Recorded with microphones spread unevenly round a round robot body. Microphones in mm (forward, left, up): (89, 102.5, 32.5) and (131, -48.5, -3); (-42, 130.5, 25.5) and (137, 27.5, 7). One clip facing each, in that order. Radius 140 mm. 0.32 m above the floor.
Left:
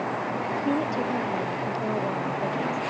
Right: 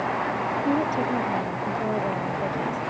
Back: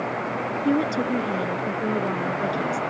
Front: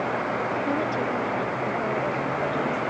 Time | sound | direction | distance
0.7 | a woman speaking | 160° right | ?